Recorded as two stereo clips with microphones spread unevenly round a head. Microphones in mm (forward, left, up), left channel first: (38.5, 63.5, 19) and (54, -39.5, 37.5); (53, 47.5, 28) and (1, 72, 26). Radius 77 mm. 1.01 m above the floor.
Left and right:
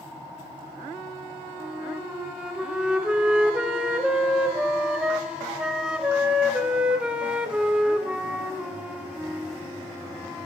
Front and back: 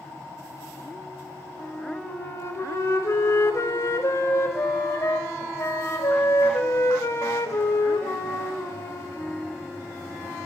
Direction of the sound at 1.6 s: 10° right.